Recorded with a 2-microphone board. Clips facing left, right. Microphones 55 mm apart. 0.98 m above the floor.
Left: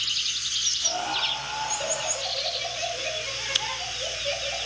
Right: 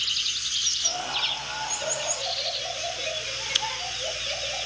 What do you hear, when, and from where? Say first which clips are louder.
0.8 s laughter: left 3 dB; 60° left (ahead or behind), 7.5 m; by 4.7 s 45° left (ahead or behind), 4 m